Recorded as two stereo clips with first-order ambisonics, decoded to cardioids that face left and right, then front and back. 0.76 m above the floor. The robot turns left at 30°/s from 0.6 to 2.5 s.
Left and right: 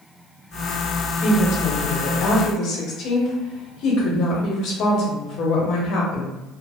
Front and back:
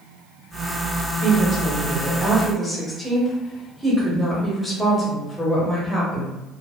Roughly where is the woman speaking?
Behind left.